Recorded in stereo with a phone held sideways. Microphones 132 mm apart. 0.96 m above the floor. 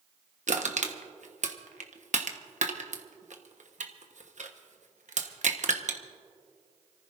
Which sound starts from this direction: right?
Crushing, at 0.5 s.